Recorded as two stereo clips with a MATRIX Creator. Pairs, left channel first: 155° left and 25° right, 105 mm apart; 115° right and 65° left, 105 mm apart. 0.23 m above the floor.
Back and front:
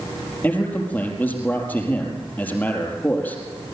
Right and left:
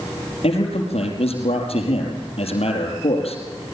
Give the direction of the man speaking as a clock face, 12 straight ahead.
4 o'clock.